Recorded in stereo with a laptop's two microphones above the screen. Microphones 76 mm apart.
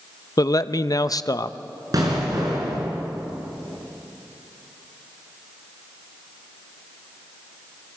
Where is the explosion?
55° right (ahead or behind), 5 m.